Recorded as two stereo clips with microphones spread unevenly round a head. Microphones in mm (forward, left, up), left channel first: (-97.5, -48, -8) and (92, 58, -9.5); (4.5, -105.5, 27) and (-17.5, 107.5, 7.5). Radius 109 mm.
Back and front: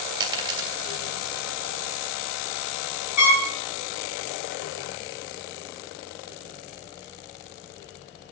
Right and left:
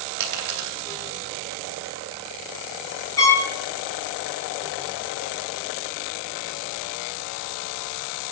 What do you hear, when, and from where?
0.2 s a dropped coin: 100° left, 2.5 m
3.2 s a trumpet: 160° right, 5.5 m